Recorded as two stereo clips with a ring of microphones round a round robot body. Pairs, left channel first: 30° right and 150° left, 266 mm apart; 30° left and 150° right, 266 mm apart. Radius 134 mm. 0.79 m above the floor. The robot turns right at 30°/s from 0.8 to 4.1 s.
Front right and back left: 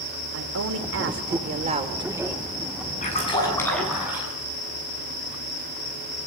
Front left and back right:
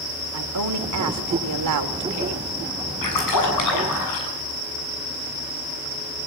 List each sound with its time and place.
0.3 s a woman speaking: 170° right, 3 m; by 2.5 s 120° right, 3 m
3.0 s a splash: 35° left, 8.5 m; by 4.3 s 65° left, 8.5 m